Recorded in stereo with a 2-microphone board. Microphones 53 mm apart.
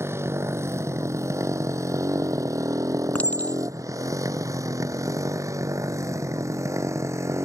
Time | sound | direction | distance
0.0 | a motorcycle | 55° right (ahead or behind) | ?
3.1 | a clink | 30° left (ahead or behind) | ?